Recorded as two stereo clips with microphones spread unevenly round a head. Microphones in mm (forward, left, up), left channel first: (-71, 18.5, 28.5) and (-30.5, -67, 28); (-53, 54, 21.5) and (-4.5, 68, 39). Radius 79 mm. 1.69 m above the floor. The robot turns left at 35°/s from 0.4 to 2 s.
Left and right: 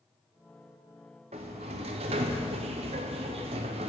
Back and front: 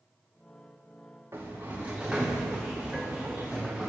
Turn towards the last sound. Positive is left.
turn(degrees=-55)